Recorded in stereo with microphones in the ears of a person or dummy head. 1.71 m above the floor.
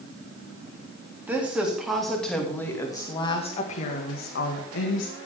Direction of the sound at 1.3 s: 10° right (ahead or behind).